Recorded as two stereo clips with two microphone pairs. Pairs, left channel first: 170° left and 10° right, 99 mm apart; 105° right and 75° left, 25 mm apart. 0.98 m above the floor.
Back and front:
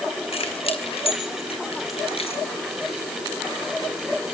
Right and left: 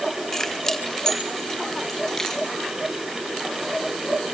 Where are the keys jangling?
175° left, 4.5 m; by 2.4 s straight behind, 7 m.